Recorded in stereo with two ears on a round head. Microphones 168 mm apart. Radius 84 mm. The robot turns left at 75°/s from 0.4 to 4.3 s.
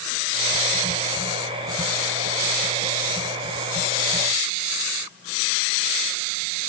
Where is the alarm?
No alarm in this recording.